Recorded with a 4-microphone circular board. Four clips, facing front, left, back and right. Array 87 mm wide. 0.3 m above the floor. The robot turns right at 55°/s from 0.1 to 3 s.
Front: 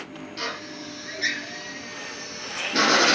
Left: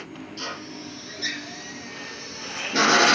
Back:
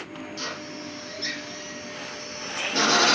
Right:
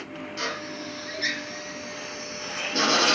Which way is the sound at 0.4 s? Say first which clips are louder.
Right 4 dB, front 4 dB; 70° right.